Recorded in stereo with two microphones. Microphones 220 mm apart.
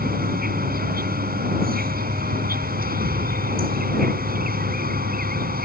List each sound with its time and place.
0.0 s an insect: 45° right (ahead or behind)